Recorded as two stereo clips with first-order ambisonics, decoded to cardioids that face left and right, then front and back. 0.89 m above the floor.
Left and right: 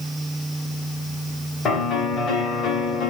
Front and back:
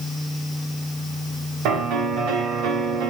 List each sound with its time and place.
1.6 s a piano: 150° left, 1.8 m